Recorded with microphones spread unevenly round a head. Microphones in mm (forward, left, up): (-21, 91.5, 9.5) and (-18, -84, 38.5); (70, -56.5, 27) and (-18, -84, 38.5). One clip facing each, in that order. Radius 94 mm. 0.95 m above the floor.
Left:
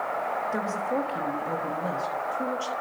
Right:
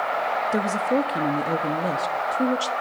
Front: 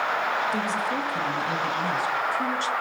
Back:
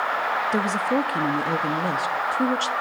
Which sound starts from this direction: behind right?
A woman speaking, at 0.5 s.